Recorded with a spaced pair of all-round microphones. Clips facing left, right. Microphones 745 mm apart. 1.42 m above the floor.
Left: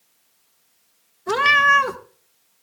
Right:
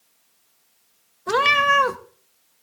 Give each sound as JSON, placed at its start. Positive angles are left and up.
{"t": 1.3, "sound": "a cat meowing", "side_deg": -5, "distance_m": 0.6}